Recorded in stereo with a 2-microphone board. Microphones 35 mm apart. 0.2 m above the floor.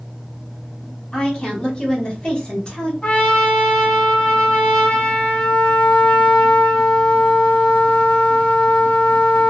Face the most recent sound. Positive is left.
turn(degrees=30)  # may be behind; listen again after turning